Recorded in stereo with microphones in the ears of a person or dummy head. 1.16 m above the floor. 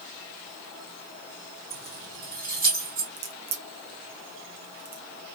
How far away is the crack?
About 0.6 m.